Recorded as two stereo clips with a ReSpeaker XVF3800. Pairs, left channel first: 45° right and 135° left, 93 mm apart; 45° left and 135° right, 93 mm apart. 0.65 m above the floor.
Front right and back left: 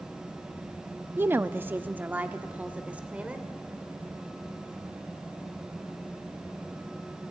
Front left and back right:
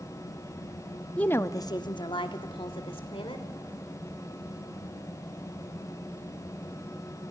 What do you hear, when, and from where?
1.2 s a woman speaking: 105° left, 0.5 m; by 3.5 s 60° left, 2.0 m